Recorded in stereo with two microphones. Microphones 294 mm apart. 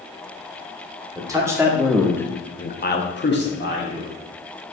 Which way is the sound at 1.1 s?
10° right (ahead or behind).